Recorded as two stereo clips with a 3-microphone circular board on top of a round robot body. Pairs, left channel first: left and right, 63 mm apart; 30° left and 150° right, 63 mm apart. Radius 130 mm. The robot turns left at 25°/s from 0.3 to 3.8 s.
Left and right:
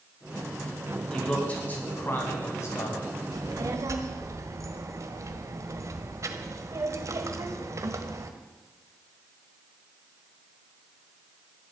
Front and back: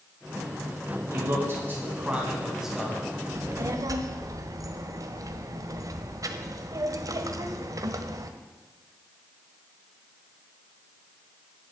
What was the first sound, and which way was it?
A man speaking, 165° left.